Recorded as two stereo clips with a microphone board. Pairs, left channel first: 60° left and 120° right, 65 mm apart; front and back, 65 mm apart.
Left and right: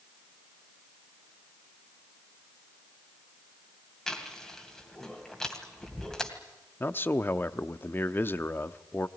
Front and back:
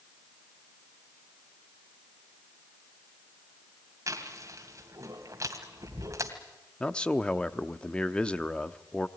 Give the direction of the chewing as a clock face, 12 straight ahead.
7 o'clock.